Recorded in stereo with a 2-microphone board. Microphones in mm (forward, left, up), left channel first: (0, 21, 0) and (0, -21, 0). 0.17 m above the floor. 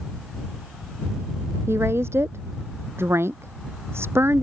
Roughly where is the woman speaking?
Right.